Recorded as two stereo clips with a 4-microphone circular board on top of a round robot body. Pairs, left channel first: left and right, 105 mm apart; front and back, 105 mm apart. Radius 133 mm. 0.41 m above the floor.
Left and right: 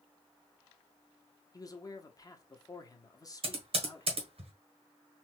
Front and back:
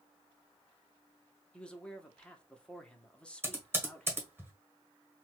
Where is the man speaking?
75° left, 1.0 m.